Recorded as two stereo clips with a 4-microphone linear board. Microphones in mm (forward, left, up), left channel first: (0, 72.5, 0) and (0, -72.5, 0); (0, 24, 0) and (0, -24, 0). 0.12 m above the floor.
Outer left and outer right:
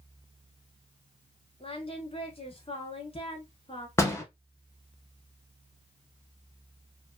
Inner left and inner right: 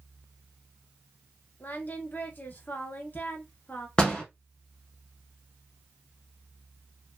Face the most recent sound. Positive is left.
turn(degrees=20)  # may be behind; listen again after turning